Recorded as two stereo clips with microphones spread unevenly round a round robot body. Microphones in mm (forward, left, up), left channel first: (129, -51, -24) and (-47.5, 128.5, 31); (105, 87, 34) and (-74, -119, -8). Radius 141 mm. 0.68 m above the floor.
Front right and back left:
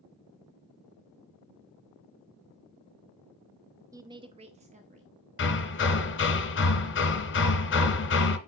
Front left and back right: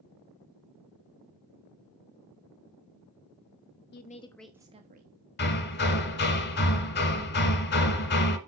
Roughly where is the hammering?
Ahead.